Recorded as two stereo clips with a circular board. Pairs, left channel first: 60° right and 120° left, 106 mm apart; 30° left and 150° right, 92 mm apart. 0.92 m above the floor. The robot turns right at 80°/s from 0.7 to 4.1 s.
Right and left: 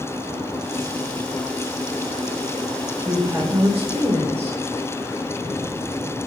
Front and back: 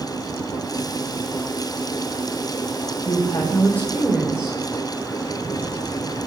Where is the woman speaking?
45° left, 3.5 m; by 4.6 s 125° left, 3.5 m.